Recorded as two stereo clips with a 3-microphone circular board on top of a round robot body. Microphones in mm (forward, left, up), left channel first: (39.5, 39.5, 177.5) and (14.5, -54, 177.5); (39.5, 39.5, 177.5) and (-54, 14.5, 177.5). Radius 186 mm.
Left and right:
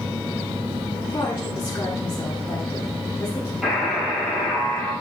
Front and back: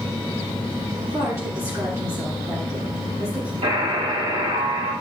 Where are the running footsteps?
No running footsteps in this recording.